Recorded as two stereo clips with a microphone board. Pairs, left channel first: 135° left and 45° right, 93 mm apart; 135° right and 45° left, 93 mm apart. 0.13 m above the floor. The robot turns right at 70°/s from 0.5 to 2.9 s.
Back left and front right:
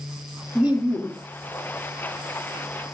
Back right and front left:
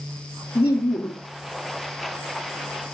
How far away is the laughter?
About 2.5 m.